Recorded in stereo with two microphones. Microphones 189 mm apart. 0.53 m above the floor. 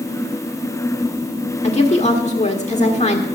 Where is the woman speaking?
35° left (ahead or behind), 1.3 m.